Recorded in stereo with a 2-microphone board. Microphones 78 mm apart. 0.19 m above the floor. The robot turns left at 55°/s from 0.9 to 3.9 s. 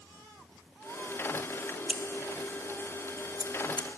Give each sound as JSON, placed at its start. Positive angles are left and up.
{"t": 1.9, "sound": "scissors", "side_deg": -10, "distance_m": 0.9}